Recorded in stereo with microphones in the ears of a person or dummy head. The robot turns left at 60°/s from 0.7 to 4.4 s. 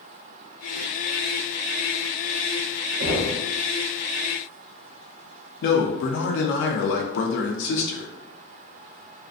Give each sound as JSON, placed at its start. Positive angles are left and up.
{"t": 3.0, "sound": "knocking", "side_deg": -50, "distance_m": 0.5}
{"t": 5.6, "sound": "a man speaking", "side_deg": 55, "distance_m": 0.6}